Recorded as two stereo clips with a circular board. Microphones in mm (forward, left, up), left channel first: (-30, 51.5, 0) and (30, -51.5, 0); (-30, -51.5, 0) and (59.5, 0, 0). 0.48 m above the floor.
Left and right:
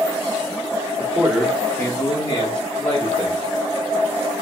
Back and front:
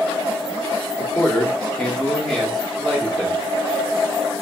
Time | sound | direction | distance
1.0 | a man speaking | 110° right | 0.8 m